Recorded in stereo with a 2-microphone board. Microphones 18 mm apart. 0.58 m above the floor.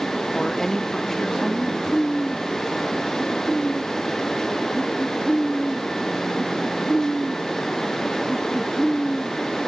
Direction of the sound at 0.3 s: 35° left (ahead or behind).